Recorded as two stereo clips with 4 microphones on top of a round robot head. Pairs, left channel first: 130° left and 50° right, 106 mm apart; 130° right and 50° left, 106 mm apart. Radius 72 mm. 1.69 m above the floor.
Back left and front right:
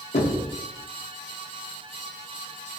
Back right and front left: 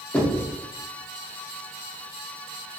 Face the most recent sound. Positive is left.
turn(degrees=150)